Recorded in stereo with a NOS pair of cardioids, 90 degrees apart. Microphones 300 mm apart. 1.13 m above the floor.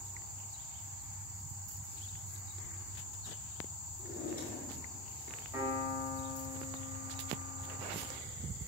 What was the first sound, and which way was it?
A drawer, 30° left.